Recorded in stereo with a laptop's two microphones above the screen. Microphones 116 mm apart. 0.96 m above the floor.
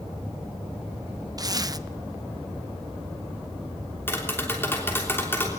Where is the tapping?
20° left (ahead or behind), 3 m.